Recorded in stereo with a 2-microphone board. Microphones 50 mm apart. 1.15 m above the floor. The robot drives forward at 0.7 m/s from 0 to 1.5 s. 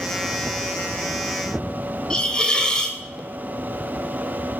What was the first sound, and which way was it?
A hiss, 15° left (ahead or behind).